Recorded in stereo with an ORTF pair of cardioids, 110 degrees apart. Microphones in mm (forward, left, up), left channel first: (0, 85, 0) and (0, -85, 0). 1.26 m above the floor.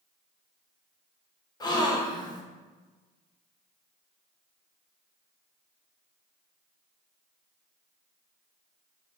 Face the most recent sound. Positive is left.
turn(degrees=25)